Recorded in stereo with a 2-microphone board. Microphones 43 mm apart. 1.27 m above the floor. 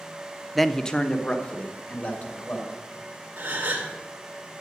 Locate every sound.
0.6 s a man speaking: centre (ahead or behind), 0.5 m; by 2.8 s 35° left (ahead or behind), 2.5 m
3.4 s a gasp: 35° right (ahead or behind), 2 m